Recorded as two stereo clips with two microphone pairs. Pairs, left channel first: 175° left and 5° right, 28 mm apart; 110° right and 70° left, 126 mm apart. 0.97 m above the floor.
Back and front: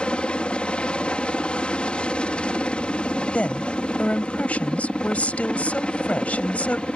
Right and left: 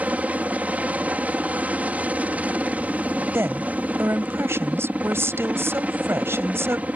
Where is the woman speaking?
140° left.